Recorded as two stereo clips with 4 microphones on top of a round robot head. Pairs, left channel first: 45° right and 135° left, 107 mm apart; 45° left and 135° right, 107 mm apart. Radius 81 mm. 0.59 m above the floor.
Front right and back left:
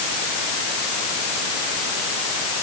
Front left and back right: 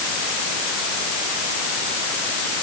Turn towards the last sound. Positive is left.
No sound to turn to.